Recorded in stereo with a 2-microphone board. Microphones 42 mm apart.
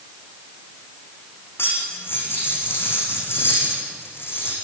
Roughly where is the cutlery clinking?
Left.